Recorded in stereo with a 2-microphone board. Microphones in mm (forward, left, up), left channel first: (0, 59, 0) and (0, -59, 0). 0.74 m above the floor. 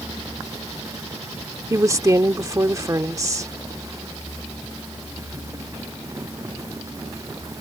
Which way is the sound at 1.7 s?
30° right (ahead or behind).